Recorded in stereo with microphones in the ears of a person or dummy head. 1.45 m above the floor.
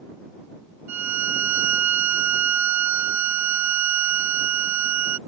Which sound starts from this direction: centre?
A violin, at 0.9 s.